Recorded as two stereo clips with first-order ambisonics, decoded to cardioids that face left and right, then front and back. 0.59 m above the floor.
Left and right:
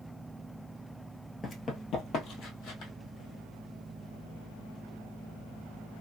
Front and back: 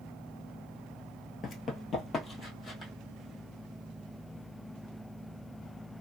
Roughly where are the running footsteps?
Ahead left.